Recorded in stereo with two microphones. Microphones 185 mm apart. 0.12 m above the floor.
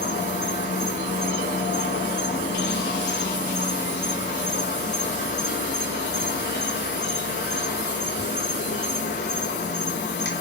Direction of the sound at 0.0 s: 75° left (ahead or behind).